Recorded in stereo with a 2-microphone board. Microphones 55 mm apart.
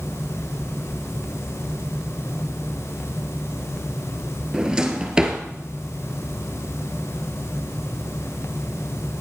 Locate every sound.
4.5 s a drawer: 15° right (ahead or behind), 1.6 m